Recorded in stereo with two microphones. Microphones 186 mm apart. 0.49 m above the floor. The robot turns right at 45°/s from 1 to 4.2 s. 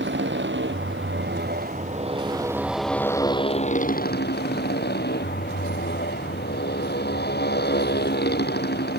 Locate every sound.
0.0 s a motorcycle: 80° right; by 9.0 s 60° left